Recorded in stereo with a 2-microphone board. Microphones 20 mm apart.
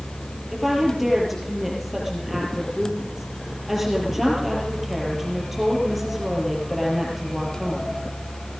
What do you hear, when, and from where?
0.5 s a woman speaking: 5° right (ahead or behind), 4.5 m